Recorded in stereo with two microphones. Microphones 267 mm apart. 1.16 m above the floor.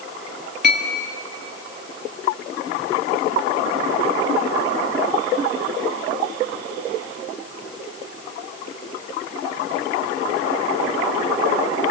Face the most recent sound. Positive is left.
turn(degrees=-40)  # may be behind; listen again after turning